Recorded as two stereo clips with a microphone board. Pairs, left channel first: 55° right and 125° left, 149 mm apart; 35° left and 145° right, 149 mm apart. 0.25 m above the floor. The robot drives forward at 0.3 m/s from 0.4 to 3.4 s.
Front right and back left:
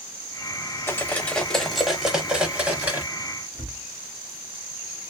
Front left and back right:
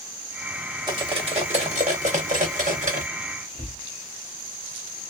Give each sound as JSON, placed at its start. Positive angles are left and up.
{"t": 0.9, "sound": "cutlery clinking", "azimuth_deg": -115, "distance_m": 0.6}
{"t": 3.5, "sound": "a cupboard door", "azimuth_deg": -115, "distance_m": 1.3}